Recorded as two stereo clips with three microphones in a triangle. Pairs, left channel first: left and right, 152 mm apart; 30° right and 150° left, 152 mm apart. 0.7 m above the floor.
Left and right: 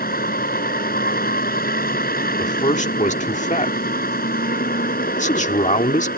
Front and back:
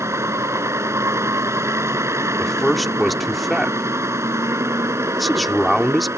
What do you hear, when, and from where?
0.0 s a vehicle: 80° left
2.4 s a man speaking: 60° left